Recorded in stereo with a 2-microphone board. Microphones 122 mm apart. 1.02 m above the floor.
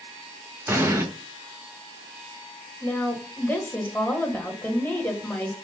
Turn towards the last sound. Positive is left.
turn(degrees=15)  # may be behind; listen again after turning